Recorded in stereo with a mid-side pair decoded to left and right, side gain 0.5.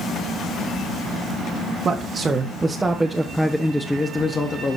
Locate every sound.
1.9 s a man speaking: 40° right, 1.4 m; by 4.8 s 30° left, 1.4 m